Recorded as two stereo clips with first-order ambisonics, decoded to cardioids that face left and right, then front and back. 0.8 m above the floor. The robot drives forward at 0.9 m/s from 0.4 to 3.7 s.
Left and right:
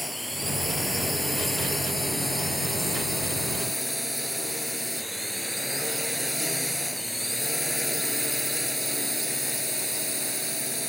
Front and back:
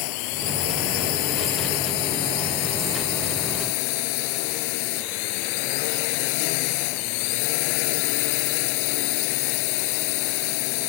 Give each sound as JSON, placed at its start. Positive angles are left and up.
{"t": 0.0, "sound": "a drone", "azimuth_deg": 0}